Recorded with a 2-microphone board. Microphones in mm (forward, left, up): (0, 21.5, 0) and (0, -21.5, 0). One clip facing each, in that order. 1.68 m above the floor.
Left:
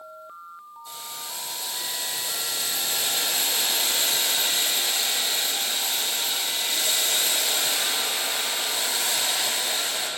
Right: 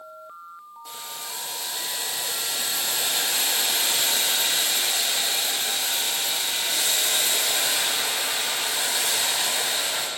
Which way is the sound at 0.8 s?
85° right.